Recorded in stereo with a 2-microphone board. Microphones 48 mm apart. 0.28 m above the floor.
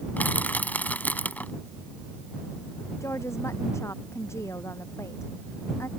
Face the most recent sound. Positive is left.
turn(degrees=75)  # may be behind; listen again after turning